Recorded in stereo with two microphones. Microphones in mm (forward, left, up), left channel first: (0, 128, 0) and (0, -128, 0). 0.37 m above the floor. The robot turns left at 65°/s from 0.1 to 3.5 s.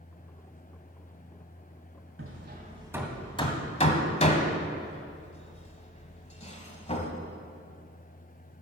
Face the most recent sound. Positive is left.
turn(degrees=25)  # may be behind; listen again after turning